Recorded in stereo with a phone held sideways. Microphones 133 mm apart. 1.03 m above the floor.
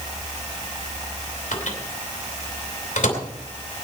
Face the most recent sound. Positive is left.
turn(degrees=70)  # may be behind; listen again after turning